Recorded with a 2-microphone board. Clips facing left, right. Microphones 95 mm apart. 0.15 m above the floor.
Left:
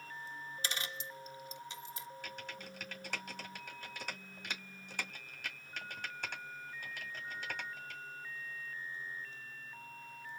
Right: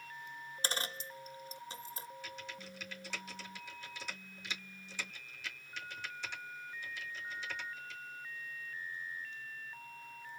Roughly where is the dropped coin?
Right.